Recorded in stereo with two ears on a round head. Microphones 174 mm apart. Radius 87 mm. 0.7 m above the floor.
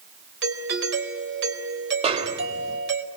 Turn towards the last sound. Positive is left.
turn(degrees=-30)  # may be behind; listen again after turning